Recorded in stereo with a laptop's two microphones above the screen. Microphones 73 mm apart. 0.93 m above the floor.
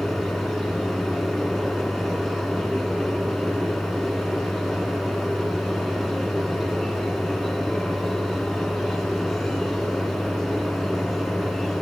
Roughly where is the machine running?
Centre.